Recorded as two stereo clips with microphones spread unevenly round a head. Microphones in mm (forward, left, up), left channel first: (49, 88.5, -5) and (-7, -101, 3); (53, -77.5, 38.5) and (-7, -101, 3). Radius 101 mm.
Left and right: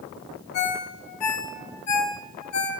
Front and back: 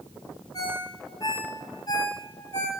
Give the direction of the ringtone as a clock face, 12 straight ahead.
9 o'clock.